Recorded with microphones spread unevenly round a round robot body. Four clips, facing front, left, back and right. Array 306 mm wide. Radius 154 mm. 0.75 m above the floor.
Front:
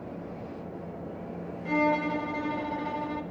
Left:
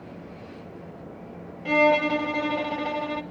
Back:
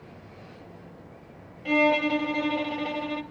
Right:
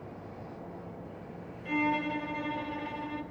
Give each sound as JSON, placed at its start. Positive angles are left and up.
{"t": 1.6, "sound": "a violin", "azimuth_deg": 125, "distance_m": 0.7}